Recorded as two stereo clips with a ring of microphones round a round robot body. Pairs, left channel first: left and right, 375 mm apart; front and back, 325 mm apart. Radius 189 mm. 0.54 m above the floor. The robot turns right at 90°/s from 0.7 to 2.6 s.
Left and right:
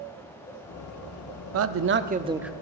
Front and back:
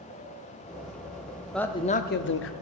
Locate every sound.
1.5 s a man speaking: 90° right, 0.8 m; by 2.5 s straight ahead, 0.8 m